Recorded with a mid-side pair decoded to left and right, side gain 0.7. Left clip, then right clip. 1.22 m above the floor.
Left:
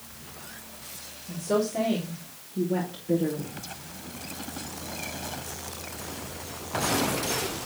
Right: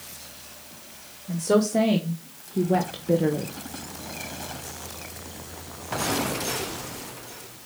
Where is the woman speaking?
35° right, 2.5 m; by 3.5 s 50° right, 1.2 m.